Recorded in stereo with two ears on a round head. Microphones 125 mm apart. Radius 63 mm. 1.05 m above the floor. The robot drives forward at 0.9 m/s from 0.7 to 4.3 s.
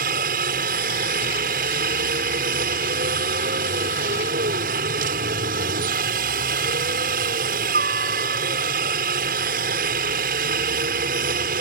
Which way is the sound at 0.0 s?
65° right (ahead or behind).